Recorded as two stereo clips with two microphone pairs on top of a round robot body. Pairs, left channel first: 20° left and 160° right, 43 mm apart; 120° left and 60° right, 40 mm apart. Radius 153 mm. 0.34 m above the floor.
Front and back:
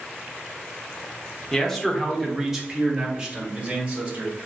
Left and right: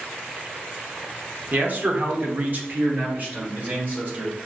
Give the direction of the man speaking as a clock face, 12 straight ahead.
2 o'clock.